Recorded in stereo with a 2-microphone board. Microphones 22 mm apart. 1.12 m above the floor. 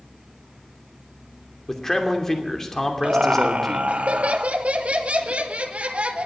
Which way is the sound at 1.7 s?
20° left (ahead or behind).